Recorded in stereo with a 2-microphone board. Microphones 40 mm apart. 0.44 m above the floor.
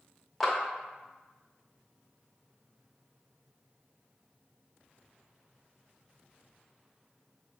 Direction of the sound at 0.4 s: 5° left (ahead or behind).